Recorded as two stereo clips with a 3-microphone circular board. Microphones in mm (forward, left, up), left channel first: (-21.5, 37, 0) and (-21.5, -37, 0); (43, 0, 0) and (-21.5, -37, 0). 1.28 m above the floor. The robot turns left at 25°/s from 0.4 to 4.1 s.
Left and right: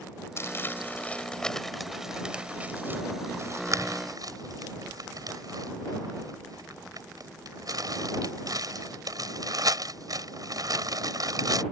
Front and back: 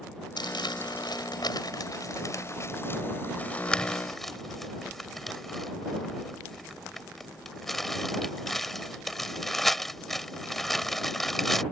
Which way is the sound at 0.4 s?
35° left.